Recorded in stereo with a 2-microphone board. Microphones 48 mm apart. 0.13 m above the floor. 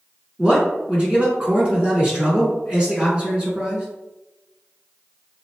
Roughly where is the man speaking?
Right.